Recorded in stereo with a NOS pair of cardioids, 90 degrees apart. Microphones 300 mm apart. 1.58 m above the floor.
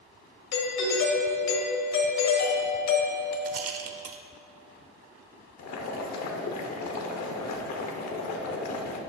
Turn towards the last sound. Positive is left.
turn(degrees=65)